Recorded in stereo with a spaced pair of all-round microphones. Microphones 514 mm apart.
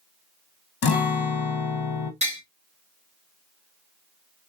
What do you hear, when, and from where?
0.8 s a guitar: 50° left (ahead or behind), 0.6 m
2.2 s tapping: 15° right (ahead or behind), 1.7 m